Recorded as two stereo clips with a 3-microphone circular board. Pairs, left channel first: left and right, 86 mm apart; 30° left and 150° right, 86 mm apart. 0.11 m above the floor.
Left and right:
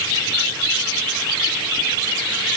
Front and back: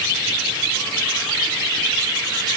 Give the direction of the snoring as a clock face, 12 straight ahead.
No snoring in this recording.